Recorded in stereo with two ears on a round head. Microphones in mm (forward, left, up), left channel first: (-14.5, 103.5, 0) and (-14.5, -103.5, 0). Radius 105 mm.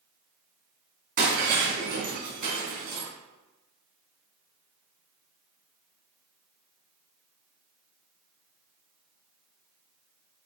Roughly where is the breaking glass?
Right.